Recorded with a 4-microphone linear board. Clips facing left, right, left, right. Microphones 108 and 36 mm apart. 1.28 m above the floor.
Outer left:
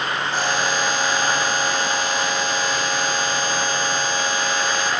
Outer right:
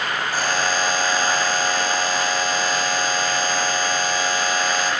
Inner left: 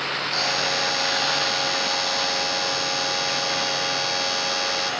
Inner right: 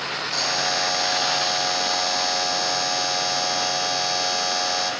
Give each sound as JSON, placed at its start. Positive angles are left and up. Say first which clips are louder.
{"t": 0.3, "sound": "a buzzer", "louder": "even, inner right 1 dB", "side_deg": 20, "distance_m": 3.0}